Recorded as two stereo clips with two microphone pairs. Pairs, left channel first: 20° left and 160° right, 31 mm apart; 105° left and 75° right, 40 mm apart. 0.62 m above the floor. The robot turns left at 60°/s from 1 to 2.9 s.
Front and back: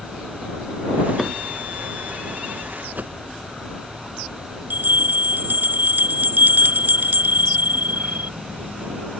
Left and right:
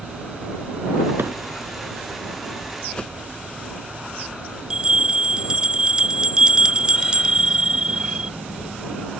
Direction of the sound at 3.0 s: 175° left.